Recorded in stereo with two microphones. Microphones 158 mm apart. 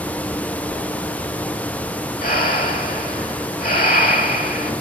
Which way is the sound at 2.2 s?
65° left (ahead or behind).